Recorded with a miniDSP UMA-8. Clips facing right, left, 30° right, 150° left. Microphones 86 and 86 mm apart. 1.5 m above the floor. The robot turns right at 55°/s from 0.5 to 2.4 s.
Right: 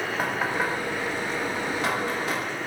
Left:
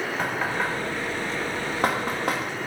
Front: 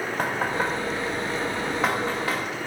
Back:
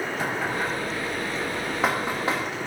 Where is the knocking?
10° right, 1.2 m; by 2.4 s 95° left, 1.2 m.